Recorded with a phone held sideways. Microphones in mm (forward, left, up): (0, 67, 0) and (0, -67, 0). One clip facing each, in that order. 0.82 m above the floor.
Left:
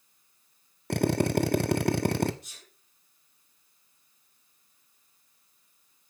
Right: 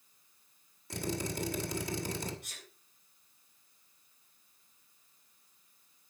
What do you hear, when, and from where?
0.9 s a drill: 65° left (ahead or behind), 1.2 m
2.4 s a sneeze: 55° right (ahead or behind), 8 m